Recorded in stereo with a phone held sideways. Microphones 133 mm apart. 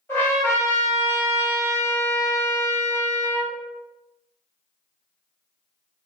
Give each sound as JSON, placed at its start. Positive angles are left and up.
{"t": 0.1, "sound": "a trumpet", "side_deg": 15, "distance_m": 1.3}